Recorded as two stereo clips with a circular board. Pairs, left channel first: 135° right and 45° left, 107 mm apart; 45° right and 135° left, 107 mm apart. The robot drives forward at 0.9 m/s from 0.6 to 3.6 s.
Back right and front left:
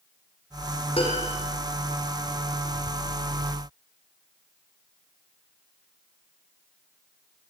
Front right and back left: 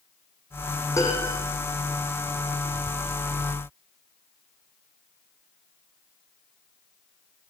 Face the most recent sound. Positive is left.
turn(degrees=-120)